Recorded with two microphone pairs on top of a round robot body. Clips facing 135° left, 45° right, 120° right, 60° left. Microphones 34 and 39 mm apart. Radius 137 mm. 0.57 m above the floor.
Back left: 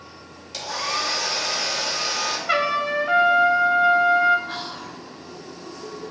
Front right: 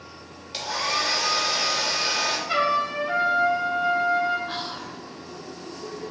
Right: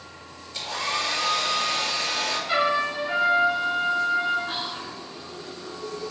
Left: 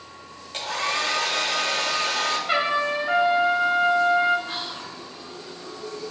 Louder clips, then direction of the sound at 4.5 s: Even, right 1 dB; 130° right.